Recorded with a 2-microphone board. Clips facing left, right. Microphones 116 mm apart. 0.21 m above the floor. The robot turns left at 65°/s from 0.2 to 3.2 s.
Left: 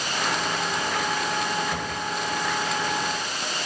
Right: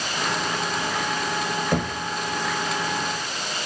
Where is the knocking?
65° right (ahead or behind), 4 m; by 2.0 s 45° right (ahead or behind), 4 m.